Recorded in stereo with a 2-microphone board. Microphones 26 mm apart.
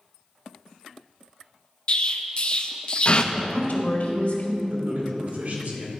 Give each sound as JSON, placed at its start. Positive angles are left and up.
{"t": 1.9, "sound": "an explosion", "side_deg": 40, "distance_m": 0.5}
{"t": 3.3, "sound": "a woman speaking", "side_deg": 70, "distance_m": 1.7}
{"t": 4.7, "sound": "a man speaking", "side_deg": -70, "distance_m": 2.5}